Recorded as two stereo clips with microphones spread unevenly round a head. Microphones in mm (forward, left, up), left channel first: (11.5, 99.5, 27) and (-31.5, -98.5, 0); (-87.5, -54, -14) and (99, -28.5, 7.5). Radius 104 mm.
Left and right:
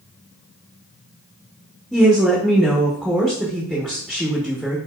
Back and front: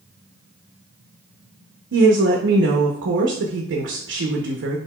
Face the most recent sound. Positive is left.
turn(degrees=-20)